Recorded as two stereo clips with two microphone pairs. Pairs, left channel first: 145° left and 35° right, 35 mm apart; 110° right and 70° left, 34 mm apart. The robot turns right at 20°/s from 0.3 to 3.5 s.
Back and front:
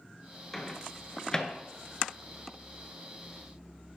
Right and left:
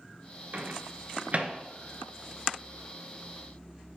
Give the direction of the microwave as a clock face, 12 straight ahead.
10 o'clock.